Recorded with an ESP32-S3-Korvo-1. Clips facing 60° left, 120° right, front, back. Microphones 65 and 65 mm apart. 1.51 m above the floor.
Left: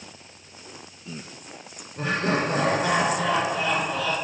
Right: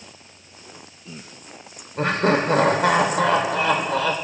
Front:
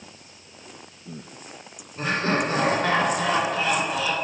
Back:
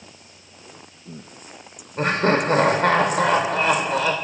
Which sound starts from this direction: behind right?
Laughter, at 2.0 s.